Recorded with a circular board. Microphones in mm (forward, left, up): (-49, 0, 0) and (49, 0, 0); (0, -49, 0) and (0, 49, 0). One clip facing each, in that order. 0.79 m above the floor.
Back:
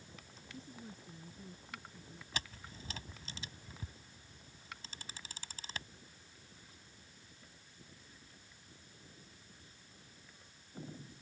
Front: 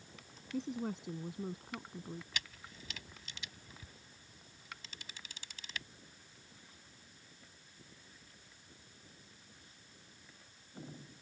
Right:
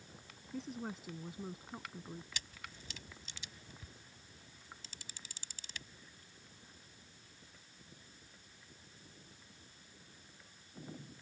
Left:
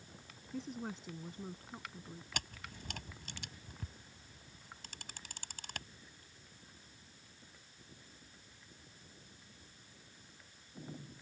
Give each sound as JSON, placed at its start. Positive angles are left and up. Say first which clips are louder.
{"t": 0.5, "sound": "a woman speaking", "louder": "front 13 dB, even", "azimuth_deg": 0}
{"t": 2.3, "sound": "a camera shutter", "louder": "back 2 dB, left 4 dB", "azimuth_deg": 125}